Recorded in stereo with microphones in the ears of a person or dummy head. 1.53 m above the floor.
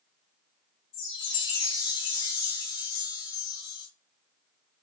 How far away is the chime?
About 1.6 m.